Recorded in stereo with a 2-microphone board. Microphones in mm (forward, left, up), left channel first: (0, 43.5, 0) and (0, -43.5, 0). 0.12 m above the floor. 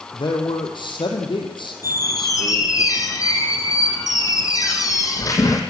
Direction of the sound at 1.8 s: 40° left (ahead or behind).